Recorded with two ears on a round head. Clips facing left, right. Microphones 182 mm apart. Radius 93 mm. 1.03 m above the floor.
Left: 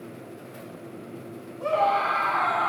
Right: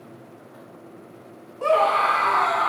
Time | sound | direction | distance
1.6 | a scream | 70° right (ahead or behind) | 1.6 m